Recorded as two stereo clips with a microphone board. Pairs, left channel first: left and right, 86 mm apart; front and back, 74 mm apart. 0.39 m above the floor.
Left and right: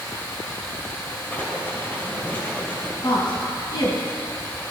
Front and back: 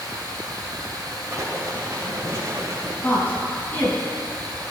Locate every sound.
0.0 s running water: 155° left, 2.5 m
1.3 s writing: 150° left, 1.9 m
3.0 s a woman speaking: 65° left, 2.5 m